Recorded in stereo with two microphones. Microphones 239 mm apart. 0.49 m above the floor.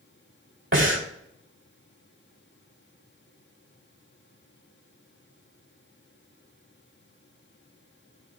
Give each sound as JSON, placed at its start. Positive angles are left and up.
{"t": 0.7, "sound": "breathing", "side_deg": -50, "distance_m": 3.0}